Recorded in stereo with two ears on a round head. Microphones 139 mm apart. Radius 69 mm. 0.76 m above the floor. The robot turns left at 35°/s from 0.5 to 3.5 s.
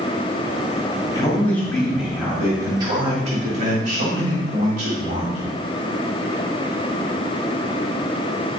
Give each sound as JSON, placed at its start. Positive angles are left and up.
{"t": 1.1, "sound": "a man speaking", "azimuth_deg": 25, "distance_m": 1.9}